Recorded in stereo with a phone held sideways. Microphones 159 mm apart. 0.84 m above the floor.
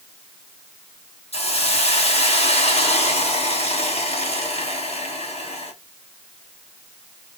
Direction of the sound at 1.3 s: 40° left (ahead or behind).